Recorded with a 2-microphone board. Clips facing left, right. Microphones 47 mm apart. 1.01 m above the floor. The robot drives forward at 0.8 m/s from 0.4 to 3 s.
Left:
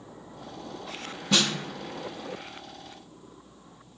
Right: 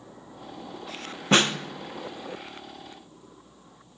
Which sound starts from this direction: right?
A snare drum, at 1.3 s.